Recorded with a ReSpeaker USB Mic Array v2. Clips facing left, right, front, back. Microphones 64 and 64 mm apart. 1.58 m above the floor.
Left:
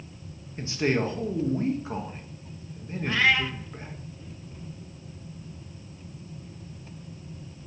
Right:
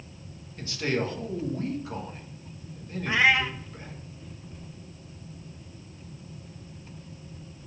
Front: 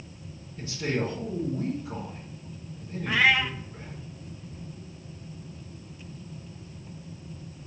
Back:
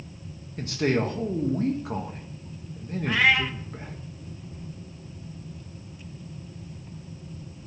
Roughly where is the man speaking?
Behind left.